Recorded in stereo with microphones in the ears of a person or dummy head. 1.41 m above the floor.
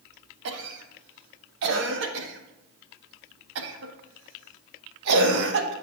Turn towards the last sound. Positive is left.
turn(degrees=-70)  # may be behind; listen again after turning